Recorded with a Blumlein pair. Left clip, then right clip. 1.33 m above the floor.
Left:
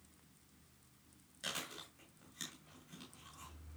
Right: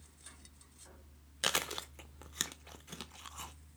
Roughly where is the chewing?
Ahead right.